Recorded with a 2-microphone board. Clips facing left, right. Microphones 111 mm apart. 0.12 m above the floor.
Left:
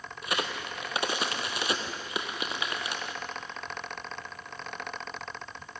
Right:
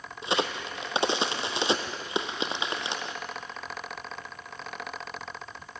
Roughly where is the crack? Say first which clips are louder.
Right 4 dB; right.